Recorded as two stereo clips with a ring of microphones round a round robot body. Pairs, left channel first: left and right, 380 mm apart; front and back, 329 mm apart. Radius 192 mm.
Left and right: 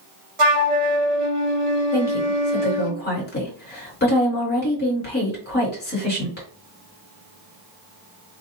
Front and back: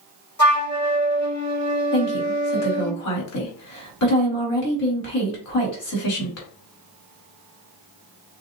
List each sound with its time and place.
0.4 s a flute: 55° right, 1.7 m
1.9 s a woman speaking: 25° left, 2 m